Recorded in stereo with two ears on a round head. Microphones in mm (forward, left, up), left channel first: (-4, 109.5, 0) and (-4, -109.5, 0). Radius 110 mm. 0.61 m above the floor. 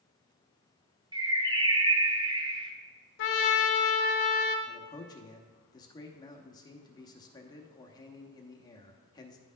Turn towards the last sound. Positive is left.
turn(degrees=15)  # may be behind; listen again after turning